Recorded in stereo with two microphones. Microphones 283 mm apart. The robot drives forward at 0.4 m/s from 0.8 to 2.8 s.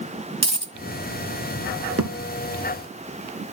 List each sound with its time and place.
0.4 s a dropped coin: 20° right (ahead or behind), 0.5 m
2.0 s a thud: 60° right (ahead or behind), 1.1 m